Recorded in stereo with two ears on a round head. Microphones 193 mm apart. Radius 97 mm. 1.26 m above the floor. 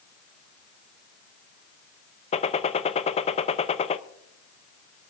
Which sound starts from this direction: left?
A gunshot, at 2.3 s.